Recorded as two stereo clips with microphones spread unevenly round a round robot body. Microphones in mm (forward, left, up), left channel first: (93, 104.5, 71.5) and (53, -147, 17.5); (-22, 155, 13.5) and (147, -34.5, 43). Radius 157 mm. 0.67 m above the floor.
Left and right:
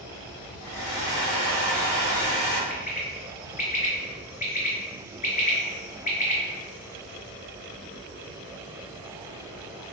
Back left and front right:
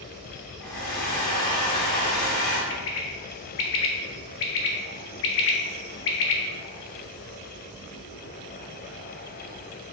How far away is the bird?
About 0.5 m.